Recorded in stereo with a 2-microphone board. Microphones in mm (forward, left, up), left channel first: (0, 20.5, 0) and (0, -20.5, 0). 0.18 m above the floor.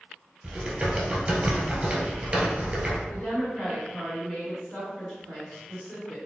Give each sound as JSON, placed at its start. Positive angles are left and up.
{"t": 0.4, "sound": "typing on a keyboard", "side_deg": -30, "distance_m": 1.0}
{"t": 3.1, "sound": "a woman speaking", "side_deg": 20, "distance_m": 1.7}